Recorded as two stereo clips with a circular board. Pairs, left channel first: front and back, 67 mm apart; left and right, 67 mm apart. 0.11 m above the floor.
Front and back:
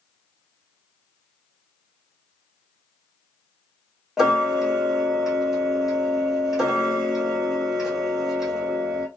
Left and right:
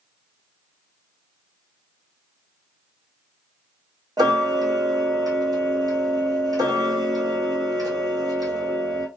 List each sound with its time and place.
4.2 s ticking: 95° right, 0.8 m